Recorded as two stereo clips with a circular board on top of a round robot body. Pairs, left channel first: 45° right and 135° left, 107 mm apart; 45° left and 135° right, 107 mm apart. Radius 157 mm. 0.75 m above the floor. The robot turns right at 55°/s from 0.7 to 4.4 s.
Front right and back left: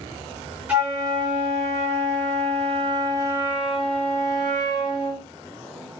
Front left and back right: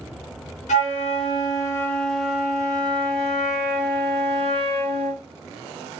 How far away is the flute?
About 0.6 m.